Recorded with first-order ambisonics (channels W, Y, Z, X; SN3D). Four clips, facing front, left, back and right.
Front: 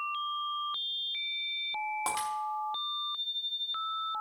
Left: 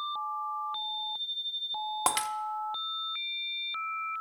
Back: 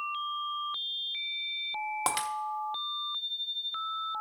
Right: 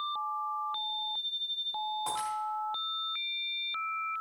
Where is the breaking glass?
115° left, 0.8 m.